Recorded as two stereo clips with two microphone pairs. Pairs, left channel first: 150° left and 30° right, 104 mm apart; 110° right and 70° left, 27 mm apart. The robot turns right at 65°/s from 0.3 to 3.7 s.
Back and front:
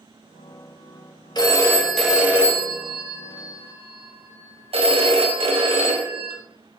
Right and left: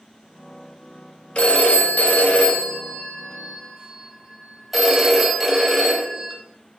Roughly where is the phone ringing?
Behind.